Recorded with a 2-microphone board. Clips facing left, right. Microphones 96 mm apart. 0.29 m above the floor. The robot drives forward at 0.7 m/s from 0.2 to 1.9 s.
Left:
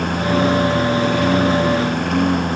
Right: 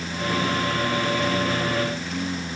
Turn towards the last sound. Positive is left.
turn(degrees=60)  # may be behind; listen again after turning